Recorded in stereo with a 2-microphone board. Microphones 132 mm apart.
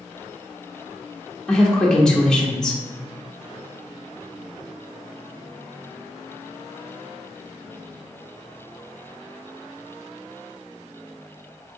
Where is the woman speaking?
5° left (ahead or behind), 0.8 m.